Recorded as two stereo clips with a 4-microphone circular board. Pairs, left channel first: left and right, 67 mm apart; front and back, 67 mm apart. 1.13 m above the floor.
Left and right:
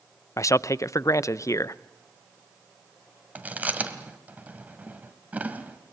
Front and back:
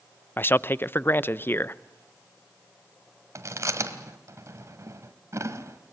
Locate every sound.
0.4 s a man speaking: 55° left, 0.5 m
3.4 s chewing: 150° right, 1.6 m